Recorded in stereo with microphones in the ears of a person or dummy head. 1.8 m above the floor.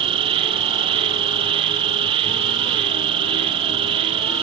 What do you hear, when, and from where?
0.0 s an insect: 30° right (ahead or behind)